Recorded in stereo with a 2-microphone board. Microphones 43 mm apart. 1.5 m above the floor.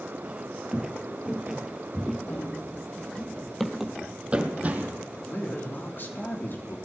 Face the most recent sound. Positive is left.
turn(degrees=50)  # may be behind; listen again after turning